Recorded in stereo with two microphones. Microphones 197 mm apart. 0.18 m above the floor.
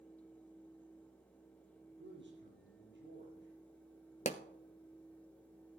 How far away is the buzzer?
No buzzer in this recording.